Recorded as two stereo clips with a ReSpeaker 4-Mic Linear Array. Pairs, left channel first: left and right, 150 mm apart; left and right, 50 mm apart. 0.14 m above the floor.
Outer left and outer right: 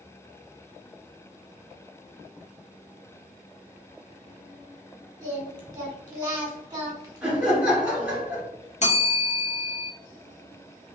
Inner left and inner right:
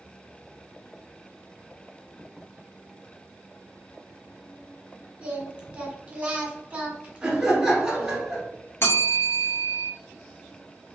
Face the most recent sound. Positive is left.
turn(degrees=50)  # may be behind; listen again after turning